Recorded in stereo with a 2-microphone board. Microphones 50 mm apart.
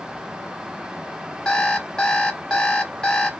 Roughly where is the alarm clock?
Centre.